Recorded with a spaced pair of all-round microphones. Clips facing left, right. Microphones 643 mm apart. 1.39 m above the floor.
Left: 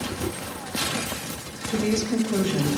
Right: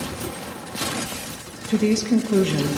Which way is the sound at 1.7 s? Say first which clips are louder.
Right 5 dB; 55° right (ahead or behind).